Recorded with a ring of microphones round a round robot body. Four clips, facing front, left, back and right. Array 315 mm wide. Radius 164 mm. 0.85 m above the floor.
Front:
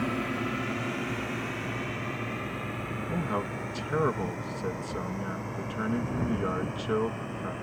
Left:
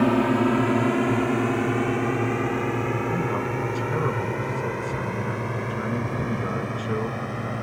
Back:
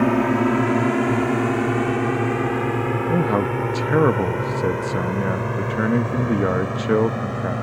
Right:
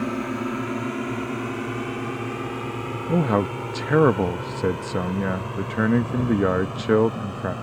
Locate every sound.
0.0 s a drone: 150° left; by 7.6 s 170° left
3.1 s a man speaking: 130° right